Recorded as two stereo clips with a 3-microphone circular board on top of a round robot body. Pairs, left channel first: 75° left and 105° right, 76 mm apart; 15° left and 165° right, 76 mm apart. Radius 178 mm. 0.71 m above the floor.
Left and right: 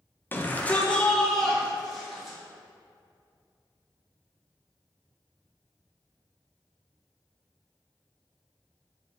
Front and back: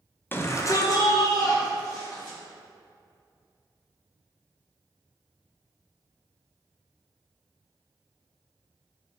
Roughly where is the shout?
Ahead left.